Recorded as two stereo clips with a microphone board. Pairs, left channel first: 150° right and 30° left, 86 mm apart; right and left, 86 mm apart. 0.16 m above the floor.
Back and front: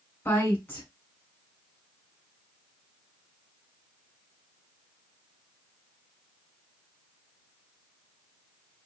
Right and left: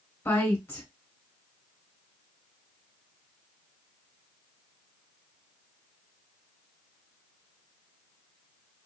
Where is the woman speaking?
115° right, 1.7 m.